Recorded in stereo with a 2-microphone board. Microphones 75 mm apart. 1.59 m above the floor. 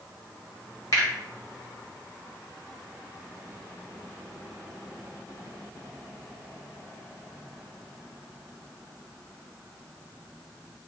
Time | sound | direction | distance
0.9 | a finger snap | 50° left (ahead or behind) | 1.3 m